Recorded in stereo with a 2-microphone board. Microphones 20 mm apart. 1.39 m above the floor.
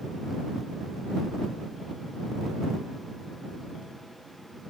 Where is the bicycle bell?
I don't hear a bicycle bell.